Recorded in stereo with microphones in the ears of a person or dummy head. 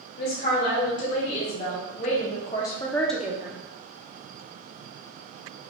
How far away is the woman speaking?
About 1.8 m.